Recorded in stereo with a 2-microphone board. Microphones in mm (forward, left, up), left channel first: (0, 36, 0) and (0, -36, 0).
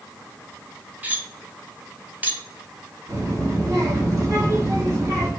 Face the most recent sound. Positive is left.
turn(degrees=-50)  # may be behind; listen again after turning